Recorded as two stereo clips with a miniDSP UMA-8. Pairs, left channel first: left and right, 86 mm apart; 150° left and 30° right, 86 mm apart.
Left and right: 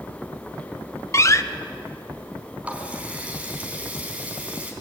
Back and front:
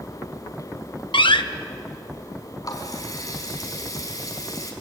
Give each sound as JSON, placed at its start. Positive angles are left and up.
{"t": 1.1, "sound": "a door slam", "azimuth_deg": 145, "distance_m": 1.0}
{"t": 2.6, "sound": "a running tap", "azimuth_deg": -165, "distance_m": 4.0}